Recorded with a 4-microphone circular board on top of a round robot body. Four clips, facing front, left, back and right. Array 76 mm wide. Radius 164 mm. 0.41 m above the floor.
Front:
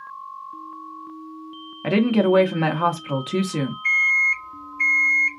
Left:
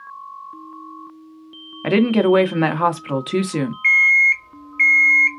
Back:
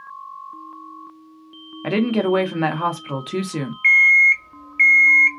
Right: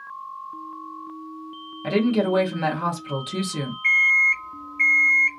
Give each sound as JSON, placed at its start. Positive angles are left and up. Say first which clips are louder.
{"t": 1.8, "sound": "a woman speaking", "louder": "left 5 dB, front 1 dB", "azimuth_deg": 90, "distance_m": 1.0}
{"t": 3.8, "sound": "an alarm clock", "louder": "left 4 dB, back 8 dB", "azimuth_deg": 160, "distance_m": 1.2}